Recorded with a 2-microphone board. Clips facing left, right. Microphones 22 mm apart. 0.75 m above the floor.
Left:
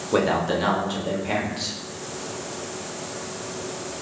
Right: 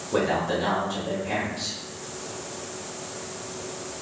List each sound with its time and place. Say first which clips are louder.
0.1 s a man speaking: left 3 dB; 35° left (ahead or behind), 1.1 m